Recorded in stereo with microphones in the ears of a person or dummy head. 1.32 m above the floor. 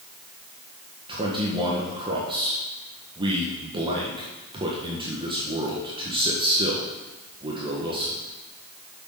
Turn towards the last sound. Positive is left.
turn(degrees=-25)  # may be behind; listen again after turning